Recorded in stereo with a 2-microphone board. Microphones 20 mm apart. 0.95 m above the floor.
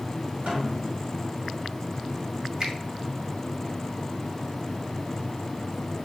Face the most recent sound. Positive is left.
turn(degrees=-35)  # may be behind; listen again after turning